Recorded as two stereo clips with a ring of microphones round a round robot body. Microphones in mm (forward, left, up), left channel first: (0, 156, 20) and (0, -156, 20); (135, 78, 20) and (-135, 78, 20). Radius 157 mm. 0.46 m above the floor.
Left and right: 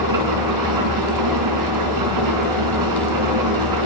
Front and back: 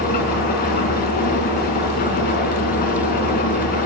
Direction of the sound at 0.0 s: 65° right.